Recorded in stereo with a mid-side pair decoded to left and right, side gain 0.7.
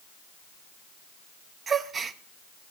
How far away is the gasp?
About 1.1 m.